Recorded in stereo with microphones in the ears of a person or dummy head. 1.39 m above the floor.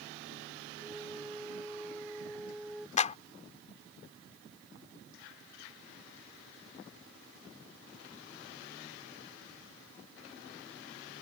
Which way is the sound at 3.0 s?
40° left (ahead or behind).